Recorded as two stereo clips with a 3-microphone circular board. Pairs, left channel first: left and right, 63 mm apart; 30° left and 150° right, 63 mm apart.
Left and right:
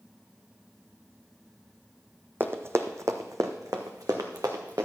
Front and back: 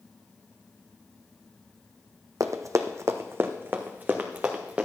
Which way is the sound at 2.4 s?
140° right.